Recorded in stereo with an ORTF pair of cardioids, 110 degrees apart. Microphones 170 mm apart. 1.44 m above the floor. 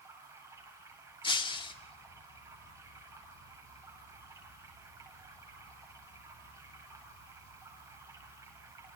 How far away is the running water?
About 8.5 m.